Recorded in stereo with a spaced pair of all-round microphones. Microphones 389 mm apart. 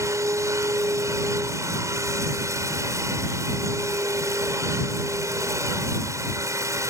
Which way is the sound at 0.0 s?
10° right (ahead or behind).